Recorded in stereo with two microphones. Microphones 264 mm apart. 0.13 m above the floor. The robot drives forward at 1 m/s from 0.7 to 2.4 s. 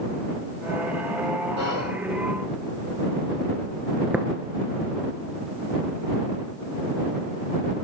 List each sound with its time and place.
1.6 s whispering: 65° right (ahead or behind), 5 m; by 1.9 s 60° right (ahead or behind), 5 m
4.1 s tapping: 5° right (ahead or behind), 0.7 m